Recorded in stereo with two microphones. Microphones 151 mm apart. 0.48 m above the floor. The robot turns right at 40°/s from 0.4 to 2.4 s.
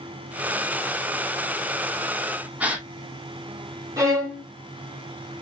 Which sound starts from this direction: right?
A violin, at 4.0 s.